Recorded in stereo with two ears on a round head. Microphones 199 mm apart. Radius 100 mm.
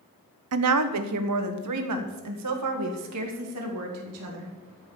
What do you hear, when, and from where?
0.5 s a woman speaking: 75° right (ahead or behind), 1.1 m; by 4.5 s 70° right (ahead or behind), 3 m